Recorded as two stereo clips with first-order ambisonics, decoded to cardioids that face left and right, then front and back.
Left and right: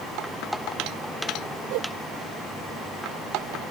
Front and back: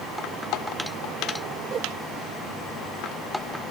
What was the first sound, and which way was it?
A whoosh, 115° right.